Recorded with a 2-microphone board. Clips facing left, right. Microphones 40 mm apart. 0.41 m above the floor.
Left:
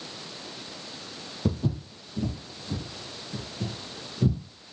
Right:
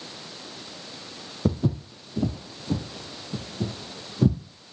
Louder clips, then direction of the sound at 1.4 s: Right 3 dB; 30° right (ahead or behind).